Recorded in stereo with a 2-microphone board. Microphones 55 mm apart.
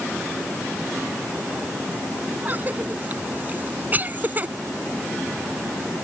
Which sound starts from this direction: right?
A cough, at 2.5 s.